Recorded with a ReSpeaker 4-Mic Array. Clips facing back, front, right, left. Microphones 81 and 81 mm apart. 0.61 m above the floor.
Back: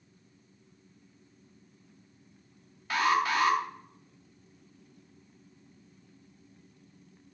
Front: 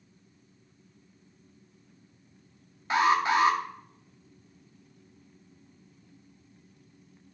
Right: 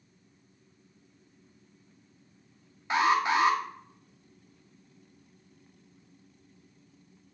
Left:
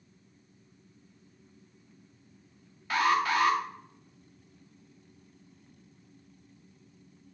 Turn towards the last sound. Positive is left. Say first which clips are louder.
# front 3 dB, right 1 dB
turn(degrees=-45)